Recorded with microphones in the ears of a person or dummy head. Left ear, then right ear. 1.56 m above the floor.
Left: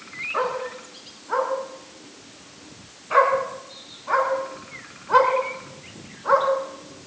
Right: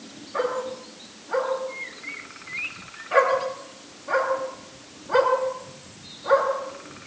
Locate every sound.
0.3 s a dog barking: 75° left (ahead or behind), 8 m